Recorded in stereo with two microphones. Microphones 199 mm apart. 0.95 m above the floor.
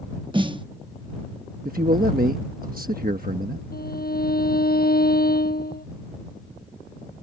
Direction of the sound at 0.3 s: 25° right (ahead or behind).